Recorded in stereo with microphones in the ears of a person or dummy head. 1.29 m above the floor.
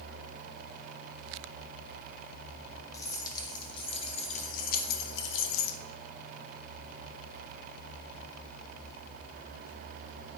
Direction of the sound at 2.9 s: 15° left (ahead or behind).